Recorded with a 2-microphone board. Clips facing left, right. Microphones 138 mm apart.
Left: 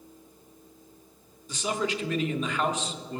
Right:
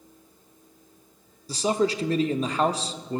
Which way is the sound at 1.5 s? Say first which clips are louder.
Right 6 dB; 35° right (ahead or behind).